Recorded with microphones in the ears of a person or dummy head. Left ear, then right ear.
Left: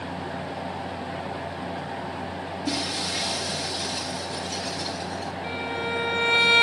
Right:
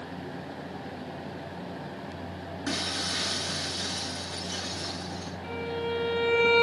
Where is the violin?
40° left (ahead or behind), 2.5 m.